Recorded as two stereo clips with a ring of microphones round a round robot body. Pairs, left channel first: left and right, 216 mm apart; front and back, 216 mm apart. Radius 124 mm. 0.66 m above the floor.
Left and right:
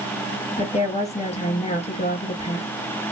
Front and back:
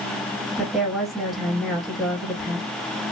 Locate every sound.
0.6 s a woman speaking: 90° left, 1.2 m